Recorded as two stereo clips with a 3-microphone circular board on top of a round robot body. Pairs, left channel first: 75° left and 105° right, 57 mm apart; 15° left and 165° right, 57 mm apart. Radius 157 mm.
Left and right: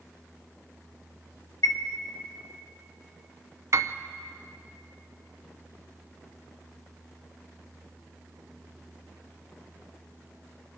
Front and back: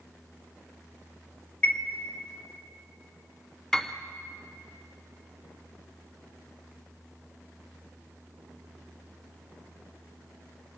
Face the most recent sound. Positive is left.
turn(degrees=-65)